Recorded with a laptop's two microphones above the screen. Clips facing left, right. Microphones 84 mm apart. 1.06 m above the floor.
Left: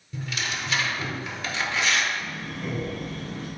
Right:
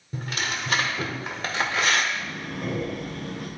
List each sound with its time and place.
0.1 s tearing paper: 45° right (ahead or behind), 1.0 m
2.1 s breathing: 70° right (ahead or behind), 1.5 m